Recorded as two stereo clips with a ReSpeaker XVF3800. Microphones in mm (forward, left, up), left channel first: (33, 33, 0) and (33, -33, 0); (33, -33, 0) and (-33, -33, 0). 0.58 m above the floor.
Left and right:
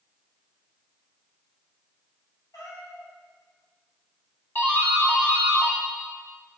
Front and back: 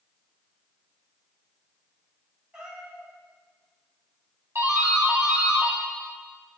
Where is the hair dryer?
No hair dryer in this recording.